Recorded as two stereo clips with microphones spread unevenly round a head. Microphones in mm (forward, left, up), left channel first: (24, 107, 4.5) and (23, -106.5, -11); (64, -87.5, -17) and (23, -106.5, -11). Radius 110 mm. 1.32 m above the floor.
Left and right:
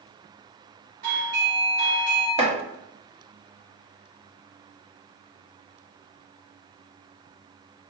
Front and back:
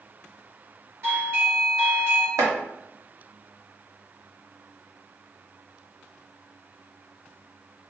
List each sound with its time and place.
1.0 s a doorbell: 120° right, 1.9 m
2.4 s chopping: 155° right, 0.9 m